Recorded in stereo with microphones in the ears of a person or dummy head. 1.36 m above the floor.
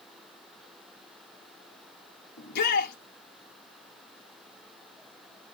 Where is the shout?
55° left (ahead or behind), 2.5 m.